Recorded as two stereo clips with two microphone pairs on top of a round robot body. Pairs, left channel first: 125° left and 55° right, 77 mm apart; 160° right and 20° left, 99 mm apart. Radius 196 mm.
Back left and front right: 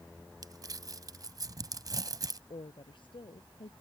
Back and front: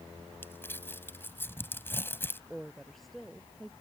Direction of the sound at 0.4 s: 90° right.